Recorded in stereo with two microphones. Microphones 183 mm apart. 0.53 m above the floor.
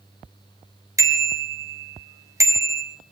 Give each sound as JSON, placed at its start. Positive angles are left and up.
{"t": 1.0, "sound": "a bicycle bell", "side_deg": -15, "distance_m": 3.0}